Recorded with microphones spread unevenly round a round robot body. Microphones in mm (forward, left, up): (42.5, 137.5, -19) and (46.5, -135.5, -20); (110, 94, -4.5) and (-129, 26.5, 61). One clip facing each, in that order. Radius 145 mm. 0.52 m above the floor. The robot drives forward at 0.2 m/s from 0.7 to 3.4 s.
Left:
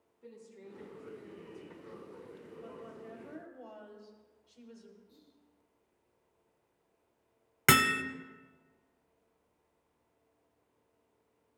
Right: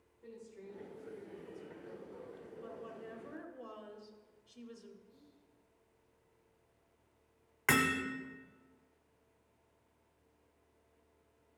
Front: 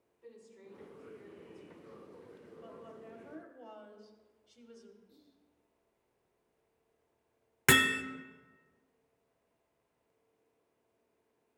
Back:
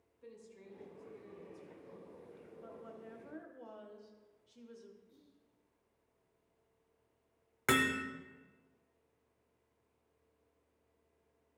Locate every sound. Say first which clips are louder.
0.2 s a woman speaking: even, front 1 dB; 170° left, 2.5 m
2.6 s a woman speaking: even, even; 50° right, 0.9 m; by 5.0 s 70° right, 0.9 m
5.1 s whispering: even, front 1 dB; 75° left, 1.8 m
7.7 s hammering: left 2 dB, front 2 dB; 55° left, 0.6 m